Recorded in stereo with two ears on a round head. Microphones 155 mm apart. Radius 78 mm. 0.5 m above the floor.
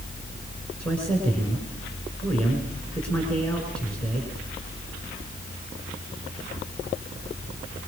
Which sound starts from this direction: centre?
A man speaking, at 0.8 s.